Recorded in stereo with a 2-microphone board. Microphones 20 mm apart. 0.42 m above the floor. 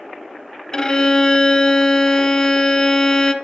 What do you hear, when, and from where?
0.7 s a violin: 30° left (ahead or behind), 0.7 m